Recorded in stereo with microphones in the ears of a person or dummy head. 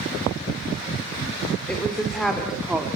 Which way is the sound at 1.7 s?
5° left (ahead or behind).